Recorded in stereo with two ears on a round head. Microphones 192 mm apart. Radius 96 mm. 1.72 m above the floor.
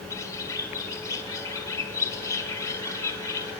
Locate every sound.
0.1 s a bird: 15° left (ahead or behind), 1.6 m